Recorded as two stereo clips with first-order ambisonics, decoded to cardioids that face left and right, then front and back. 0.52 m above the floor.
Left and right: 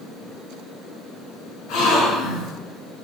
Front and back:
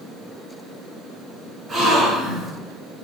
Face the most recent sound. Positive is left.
turn(degrees=105)